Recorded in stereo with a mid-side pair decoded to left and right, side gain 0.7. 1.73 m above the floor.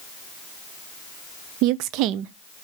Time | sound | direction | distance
1.6 | a woman speaking | 65° right | 0.6 m